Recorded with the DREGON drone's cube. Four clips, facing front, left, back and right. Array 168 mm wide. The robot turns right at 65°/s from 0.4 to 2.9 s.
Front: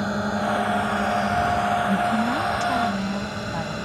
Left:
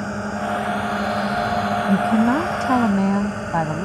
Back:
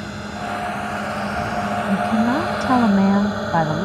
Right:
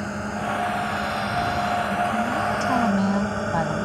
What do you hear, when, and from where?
0.0 s a drone: 25° left; by 3.9 s 155° right
1.9 s a woman speaking: 95° left; by 3.9 s 160° left